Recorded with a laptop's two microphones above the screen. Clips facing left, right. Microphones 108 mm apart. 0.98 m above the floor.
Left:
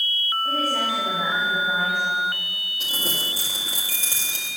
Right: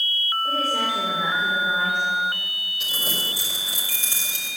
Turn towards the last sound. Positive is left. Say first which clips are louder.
# left 1 dB
turn(degrees=40)  # may be behind; listen again after turning